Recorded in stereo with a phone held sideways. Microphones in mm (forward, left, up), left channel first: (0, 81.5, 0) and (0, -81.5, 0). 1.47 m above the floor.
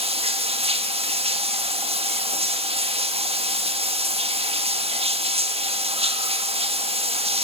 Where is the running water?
35° right (ahead or behind), 1.4 m.